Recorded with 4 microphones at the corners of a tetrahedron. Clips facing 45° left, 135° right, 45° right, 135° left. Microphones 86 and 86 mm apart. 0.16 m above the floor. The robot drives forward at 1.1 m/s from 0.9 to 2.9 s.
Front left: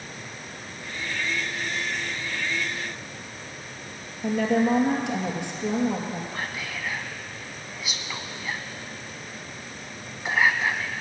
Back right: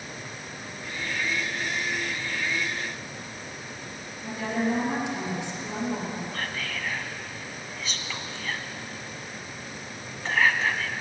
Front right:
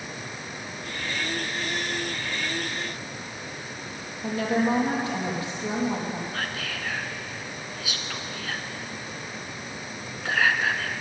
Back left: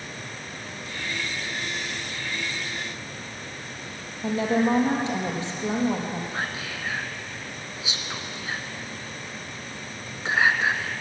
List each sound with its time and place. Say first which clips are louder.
4.2 s a woman speaking: front left 6 dB, back left 2 dB; 75° left, 3.5 m
6.3 s whispering: even, back left 1 dB; 110° left, 1.2 m